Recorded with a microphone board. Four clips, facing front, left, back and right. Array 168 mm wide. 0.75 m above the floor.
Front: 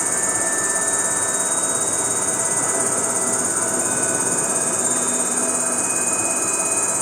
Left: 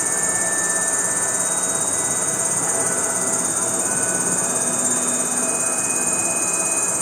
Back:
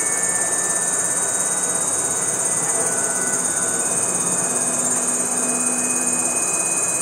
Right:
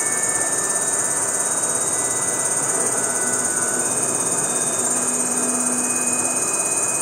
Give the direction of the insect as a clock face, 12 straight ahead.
1 o'clock.